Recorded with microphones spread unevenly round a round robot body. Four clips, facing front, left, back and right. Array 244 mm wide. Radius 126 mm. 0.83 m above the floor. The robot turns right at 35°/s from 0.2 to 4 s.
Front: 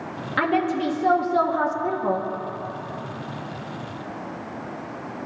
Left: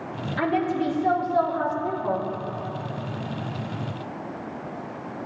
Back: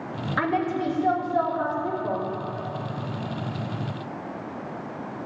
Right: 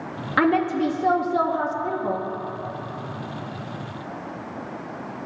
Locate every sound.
0.4 s a woman speaking: 80° right, 1.1 m; by 2.3 s 15° right, 1.1 m